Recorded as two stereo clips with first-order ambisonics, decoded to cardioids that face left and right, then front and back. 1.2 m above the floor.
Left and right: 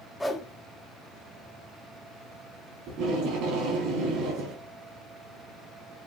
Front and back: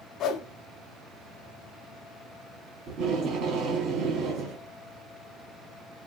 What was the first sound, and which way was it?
A whoosh, 10° left.